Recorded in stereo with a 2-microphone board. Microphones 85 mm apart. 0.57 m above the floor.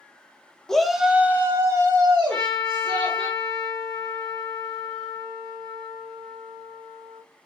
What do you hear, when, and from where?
0.7 s a shout: 10° left (ahead or behind), 0.6 m; by 3.3 s 50° right (ahead or behind), 1.4 m
2.3 s a trumpet: 5° left (ahead or behind), 2.0 m